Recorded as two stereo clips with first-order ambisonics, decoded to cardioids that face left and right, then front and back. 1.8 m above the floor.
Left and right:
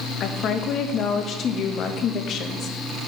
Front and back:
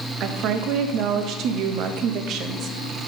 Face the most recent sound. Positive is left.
turn(degrees=140)